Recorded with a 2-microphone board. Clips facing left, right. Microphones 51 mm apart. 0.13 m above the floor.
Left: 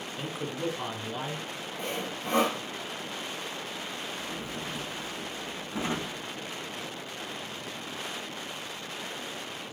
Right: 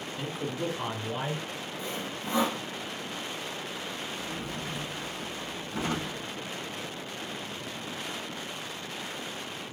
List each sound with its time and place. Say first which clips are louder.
0.2 s a man speaking: right 1 dB; 20° left (ahead or behind), 1.8 m; by 1.4 s 35° right (ahead or behind), 1.9 m
1.8 s sawing: left 3 dB; 60° left (ahead or behind), 2.5 m
4.2 s a drawer: even; 25° left (ahead or behind), 4 m